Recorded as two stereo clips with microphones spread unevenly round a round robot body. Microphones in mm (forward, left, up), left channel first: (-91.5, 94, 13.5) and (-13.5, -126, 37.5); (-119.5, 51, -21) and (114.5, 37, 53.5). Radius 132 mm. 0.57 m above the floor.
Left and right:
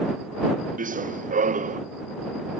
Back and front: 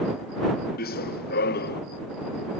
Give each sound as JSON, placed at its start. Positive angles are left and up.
{"t": 0.8, "sound": "running footsteps", "azimuth_deg": -125}